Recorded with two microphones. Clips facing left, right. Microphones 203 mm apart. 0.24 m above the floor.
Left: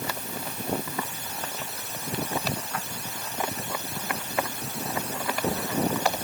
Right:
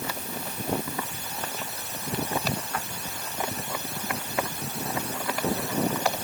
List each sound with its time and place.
Only background noise.